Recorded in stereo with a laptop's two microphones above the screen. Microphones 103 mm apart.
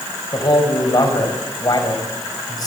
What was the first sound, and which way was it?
A man speaking, 40° left (ahead or behind).